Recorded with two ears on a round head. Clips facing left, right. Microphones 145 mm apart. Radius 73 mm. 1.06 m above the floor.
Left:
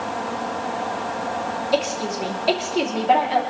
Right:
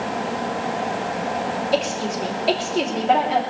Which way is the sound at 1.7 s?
Centre (ahead or behind).